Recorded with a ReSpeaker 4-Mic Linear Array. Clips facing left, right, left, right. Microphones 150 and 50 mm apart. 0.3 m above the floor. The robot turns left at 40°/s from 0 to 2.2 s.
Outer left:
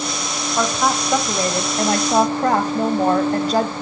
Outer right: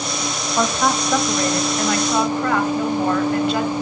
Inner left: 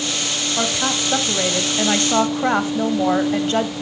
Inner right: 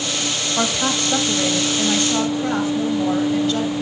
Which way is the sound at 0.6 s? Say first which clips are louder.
Even, inner right 1 dB; 175° right.